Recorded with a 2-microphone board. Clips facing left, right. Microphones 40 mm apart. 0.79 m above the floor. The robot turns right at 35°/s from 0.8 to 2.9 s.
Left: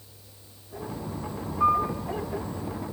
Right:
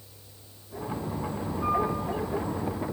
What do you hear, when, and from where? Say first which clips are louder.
1.6 s a piano: left 4 dB; 80° left, 8 m; by 1.9 s 70° left (ahead or behind), 8 m